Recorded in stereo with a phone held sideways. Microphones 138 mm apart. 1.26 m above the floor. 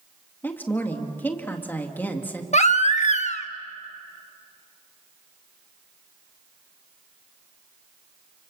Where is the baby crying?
55° left (ahead or behind), 1.1 m.